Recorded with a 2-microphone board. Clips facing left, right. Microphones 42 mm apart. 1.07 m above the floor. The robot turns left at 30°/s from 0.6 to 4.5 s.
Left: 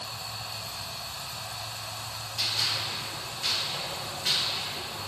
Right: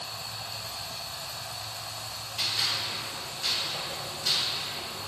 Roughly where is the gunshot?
Centre.